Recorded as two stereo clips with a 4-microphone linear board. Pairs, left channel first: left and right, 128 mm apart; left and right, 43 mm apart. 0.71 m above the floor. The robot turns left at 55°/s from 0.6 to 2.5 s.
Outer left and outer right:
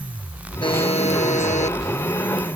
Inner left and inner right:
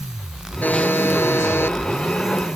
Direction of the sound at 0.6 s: 135° left.